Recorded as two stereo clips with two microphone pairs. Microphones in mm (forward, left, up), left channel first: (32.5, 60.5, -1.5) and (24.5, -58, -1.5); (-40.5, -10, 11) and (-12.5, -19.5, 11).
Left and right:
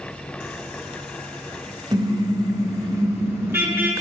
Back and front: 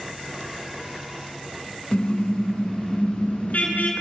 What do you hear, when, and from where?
1.9 s a car horn: 145° right, 5.5 m; by 3.9 s 170° right, 6.5 m